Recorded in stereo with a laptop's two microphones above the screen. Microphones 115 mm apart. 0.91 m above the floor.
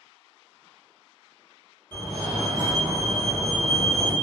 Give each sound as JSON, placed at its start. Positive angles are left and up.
{"t": 1.9, "sound": "a fire alarm", "side_deg": 20, "distance_m": 1.4}